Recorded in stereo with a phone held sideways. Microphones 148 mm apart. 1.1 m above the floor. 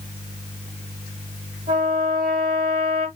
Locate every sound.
1.7 s a trumpet: 65° right (ahead or behind), 1.9 m